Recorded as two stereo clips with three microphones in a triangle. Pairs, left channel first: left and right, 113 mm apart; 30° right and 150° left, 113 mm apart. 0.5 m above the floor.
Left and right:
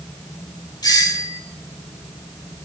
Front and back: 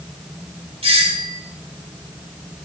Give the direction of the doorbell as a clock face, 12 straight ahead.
7 o'clock.